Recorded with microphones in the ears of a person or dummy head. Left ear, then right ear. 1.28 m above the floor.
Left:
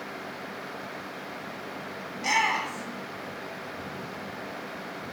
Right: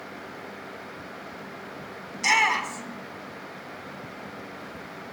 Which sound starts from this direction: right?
A shout, at 2.1 s.